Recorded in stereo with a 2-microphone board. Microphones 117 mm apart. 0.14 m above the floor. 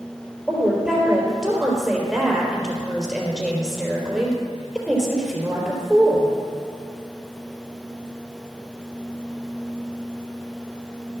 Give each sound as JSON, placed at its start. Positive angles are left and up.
{"t": 0.5, "sound": "a woman speaking", "side_deg": -5, "distance_m": 3.5}